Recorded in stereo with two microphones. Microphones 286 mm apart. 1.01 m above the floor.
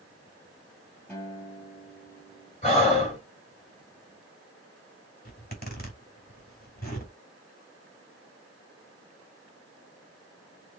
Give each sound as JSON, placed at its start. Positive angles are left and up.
{"t": 1.1, "sound": "a guitar", "side_deg": 10, "distance_m": 3.5}
{"t": 2.6, "sound": "breathing", "side_deg": 25, "distance_m": 4.5}
{"t": 5.2, "sound": "a zipper", "side_deg": 35, "distance_m": 3.0}